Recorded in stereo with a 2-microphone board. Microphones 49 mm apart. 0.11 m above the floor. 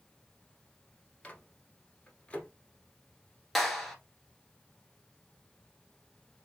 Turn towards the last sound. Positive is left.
turn(degrees=5)  # may be behind; listen again after turning